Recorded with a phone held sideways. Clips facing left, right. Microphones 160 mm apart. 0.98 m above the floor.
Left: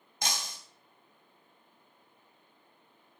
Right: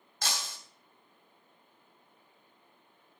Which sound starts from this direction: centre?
Breaking glass, at 0.2 s.